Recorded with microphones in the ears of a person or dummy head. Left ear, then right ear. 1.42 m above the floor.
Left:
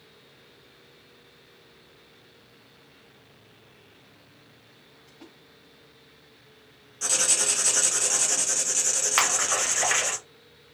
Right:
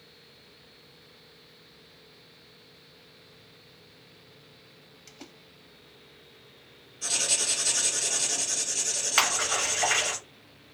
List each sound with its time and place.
5.1 s a splash: 80° right, 0.8 m
7.0 s writing: 45° left (ahead or behind), 0.7 m
9.2 s a splash: 10° left (ahead or behind), 0.9 m